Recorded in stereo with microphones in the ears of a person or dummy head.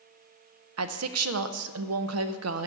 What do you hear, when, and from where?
0.8 s a woman speaking: 90° right, 0.7 m